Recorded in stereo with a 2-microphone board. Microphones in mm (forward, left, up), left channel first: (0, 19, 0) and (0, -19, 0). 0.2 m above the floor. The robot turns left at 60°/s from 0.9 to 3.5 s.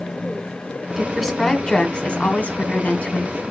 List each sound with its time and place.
1.0 s a woman speaking: 175° right, 1.5 m; by 3.4 s 40° left, 1.5 m